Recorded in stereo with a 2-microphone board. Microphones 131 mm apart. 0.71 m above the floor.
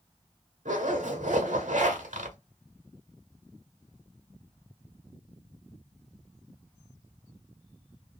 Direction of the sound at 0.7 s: 70° right (ahead or behind).